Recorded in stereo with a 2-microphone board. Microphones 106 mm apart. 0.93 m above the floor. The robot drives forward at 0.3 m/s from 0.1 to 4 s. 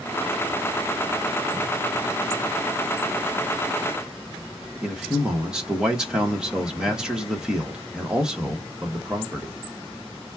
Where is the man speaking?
10° right (ahead or behind), 1.3 m.